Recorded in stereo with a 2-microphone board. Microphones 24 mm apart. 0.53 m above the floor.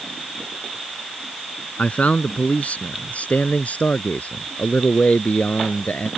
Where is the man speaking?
80° left.